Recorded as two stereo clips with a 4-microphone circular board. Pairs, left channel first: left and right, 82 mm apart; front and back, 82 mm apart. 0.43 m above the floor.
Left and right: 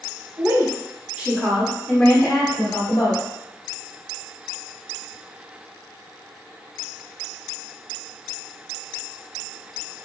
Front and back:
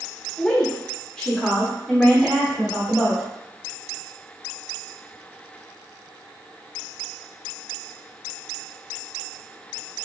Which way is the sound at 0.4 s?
65° right.